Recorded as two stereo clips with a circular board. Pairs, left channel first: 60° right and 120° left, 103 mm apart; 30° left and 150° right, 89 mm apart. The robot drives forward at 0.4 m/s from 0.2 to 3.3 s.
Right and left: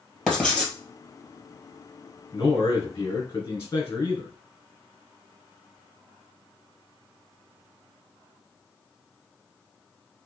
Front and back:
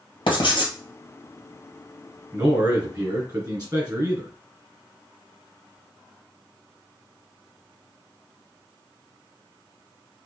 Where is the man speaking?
105° right, 2 m; by 4.3 s 120° right, 2.5 m.